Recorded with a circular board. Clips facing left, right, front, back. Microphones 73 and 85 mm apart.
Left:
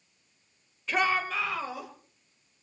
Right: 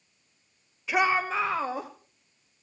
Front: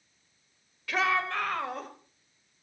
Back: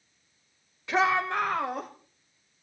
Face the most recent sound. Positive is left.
turn(degrees=-110)